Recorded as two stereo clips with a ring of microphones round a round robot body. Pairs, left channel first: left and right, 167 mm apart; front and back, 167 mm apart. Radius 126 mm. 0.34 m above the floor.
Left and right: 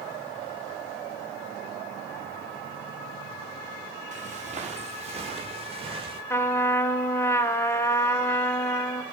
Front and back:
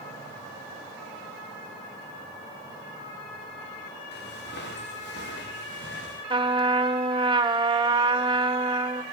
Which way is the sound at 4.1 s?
45° right.